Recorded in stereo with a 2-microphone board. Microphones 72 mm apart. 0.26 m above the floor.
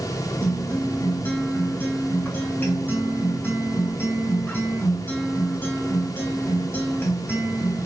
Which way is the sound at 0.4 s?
30° left (ahead or behind).